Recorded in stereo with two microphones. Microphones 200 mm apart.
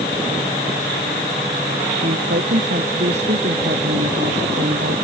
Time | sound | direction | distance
2.0 | a woman speaking | 55° right (ahead or behind) | ?